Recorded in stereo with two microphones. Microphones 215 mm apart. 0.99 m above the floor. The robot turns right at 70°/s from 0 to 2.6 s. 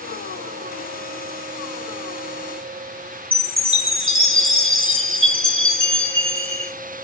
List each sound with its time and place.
3.3 s a chime: 60° right (ahead or behind), 1.7 m